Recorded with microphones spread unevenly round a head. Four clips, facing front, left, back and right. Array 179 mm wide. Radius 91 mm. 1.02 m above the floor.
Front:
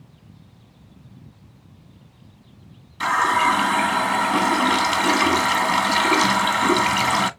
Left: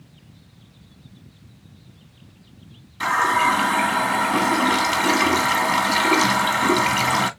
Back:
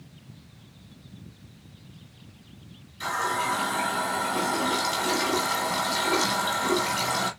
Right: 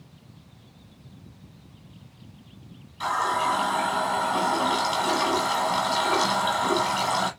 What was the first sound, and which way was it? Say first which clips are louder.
A running tap: left 5 dB, front 9 dB; 55° left.